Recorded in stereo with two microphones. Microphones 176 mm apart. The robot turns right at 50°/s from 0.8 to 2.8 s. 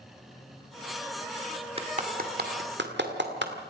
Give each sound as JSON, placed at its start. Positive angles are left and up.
{"t": 1.8, "sound": "a clap", "side_deg": -35, "distance_m": 2.0}